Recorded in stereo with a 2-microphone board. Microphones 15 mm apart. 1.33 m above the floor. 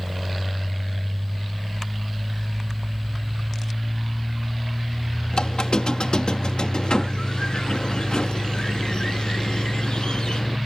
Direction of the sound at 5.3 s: 75° left (ahead or behind).